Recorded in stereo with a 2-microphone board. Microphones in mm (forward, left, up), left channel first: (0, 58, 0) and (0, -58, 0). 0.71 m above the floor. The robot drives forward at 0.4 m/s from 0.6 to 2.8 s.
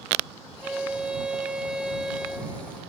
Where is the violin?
10° right (ahead or behind), 1.0 m; by 2.5 s 5° right (ahead or behind), 1.8 m.